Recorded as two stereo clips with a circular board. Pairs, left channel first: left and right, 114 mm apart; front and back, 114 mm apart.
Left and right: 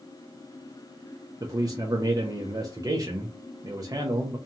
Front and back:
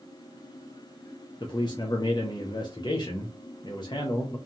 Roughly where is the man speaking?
Ahead right.